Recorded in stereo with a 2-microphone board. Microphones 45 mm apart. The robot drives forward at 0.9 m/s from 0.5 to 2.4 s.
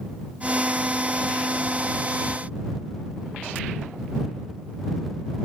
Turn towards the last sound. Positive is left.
No sound to turn to.